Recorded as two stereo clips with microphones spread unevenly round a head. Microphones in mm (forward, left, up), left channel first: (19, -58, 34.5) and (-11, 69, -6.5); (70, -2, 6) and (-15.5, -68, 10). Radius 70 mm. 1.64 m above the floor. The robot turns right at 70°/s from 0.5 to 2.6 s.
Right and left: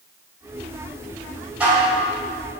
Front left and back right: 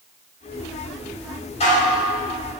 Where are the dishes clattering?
15° left, 3.5 m; by 2.0 s 45° left, 3.5 m.